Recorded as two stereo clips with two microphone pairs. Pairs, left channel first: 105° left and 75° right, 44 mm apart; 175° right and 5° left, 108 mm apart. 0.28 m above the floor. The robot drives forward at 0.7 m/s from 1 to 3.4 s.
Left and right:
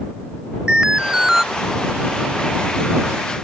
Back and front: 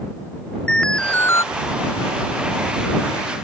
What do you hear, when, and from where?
0.7 s an alarm: 105° right; by 1.4 s 145° right